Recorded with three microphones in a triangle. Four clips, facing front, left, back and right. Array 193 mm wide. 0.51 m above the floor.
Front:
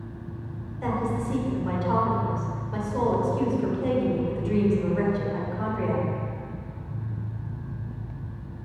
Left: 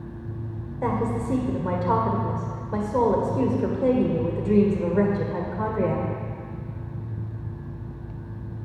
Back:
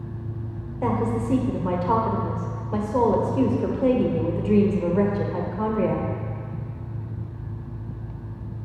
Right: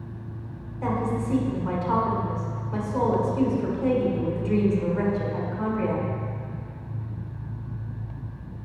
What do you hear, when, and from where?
0.8 s a woman speaking: 135° left, 1.6 m